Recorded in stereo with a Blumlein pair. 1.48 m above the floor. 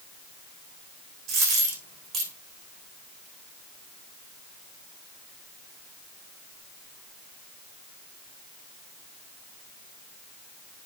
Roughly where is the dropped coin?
Ahead right.